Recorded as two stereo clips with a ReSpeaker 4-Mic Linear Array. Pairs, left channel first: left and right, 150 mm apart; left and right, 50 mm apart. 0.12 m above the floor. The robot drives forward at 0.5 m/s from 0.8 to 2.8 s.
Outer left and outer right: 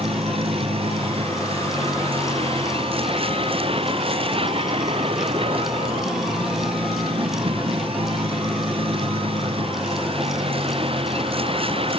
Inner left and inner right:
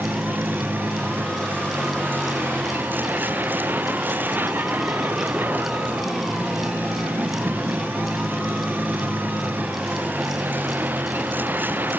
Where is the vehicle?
40° right (ahead or behind).